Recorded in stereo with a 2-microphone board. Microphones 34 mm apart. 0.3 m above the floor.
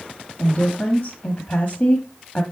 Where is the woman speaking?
50° left (ahead or behind), 1.4 m.